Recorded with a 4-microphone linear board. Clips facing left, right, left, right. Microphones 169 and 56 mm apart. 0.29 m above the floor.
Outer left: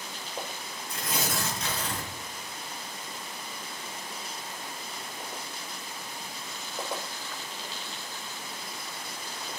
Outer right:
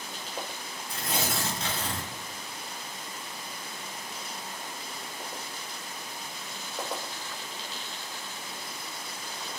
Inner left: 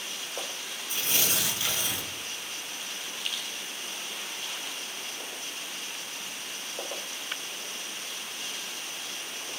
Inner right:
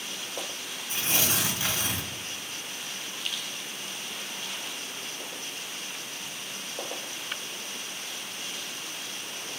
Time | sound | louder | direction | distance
0.9 | tearing paper | outer right 1 dB, inner right 2 dB | 30° right (ahead or behind) | 2 m